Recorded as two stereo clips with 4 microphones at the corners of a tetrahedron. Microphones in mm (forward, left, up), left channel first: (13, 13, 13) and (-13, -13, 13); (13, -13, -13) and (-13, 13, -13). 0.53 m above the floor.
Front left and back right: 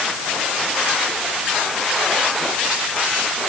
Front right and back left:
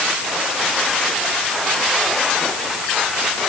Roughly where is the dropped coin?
No dropped coin in this recording.